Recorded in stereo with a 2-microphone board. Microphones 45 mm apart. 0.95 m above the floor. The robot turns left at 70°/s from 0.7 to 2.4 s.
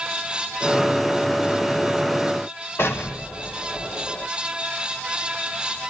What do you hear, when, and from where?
2.8 s an explosion: 80° left, 1.6 m